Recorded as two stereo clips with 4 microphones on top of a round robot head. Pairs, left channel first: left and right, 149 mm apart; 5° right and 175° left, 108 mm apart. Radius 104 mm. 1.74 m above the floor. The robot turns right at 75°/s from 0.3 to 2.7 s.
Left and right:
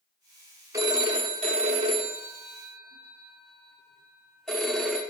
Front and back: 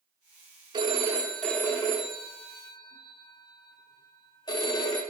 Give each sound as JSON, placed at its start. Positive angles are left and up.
{"t": 0.7, "sound": "a phone ringing", "azimuth_deg": -145, "distance_m": 0.7}